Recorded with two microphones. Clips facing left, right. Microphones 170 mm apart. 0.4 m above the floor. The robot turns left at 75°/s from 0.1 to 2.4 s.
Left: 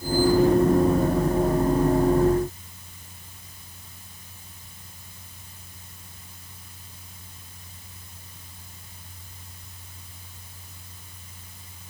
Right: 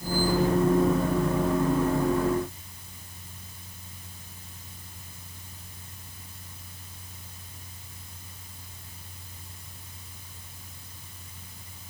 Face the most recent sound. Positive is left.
No sound to turn to.